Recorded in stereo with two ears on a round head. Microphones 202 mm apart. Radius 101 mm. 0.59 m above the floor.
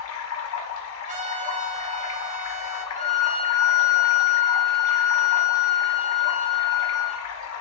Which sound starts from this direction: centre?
A violin, at 3.0 s.